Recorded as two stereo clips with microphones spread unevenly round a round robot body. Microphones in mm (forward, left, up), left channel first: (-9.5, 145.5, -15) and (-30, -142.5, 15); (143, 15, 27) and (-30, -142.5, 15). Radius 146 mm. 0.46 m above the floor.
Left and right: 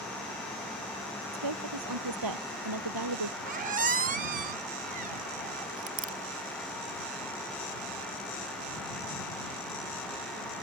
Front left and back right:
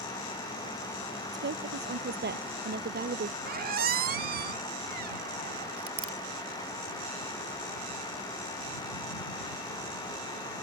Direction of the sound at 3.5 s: 150° right.